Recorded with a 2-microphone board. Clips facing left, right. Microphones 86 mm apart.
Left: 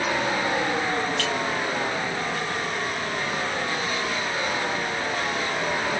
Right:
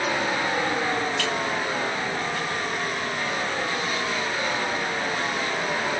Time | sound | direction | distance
1.2 | a clink | 45° left (ahead or behind) | 2.5 m